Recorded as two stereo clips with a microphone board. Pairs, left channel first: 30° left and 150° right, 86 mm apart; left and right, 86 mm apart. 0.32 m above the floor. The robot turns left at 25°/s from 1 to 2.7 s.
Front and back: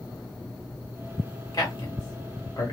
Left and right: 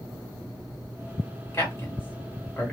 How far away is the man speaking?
About 1.2 m.